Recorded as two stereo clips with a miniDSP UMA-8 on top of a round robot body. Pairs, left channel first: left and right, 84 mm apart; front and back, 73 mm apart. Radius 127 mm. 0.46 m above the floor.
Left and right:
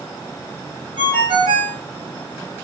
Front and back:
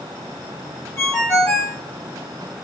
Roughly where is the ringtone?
Ahead right.